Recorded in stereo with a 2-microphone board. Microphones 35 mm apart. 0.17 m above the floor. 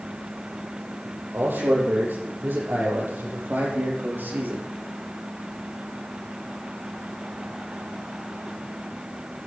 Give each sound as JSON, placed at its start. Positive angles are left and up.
{"t": 1.3, "sound": "a man speaking", "side_deg": -70, "distance_m": 7.0}